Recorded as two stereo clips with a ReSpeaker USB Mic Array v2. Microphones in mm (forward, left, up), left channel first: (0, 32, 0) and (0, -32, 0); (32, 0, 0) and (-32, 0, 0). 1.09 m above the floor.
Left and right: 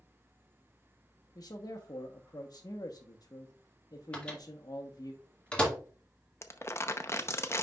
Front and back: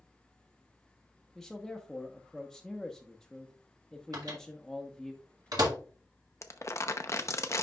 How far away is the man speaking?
About 0.8 m.